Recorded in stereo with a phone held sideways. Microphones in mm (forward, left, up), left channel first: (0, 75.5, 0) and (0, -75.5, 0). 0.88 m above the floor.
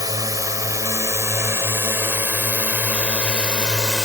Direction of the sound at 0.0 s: 25° right (ahead or behind).